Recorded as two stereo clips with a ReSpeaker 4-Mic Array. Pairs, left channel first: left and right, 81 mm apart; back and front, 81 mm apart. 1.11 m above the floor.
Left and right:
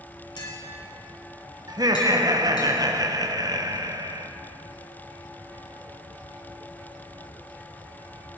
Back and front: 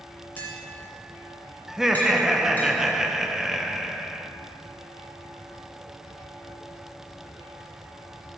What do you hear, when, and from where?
0.4 s tapping: 110° left, 2.5 m
1.7 s laughter: 85° right, 0.7 m